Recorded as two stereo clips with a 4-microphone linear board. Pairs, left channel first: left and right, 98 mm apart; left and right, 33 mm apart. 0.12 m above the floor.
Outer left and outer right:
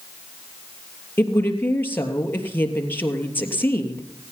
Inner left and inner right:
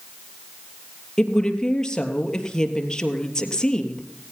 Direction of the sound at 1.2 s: 20° left (ahead or behind).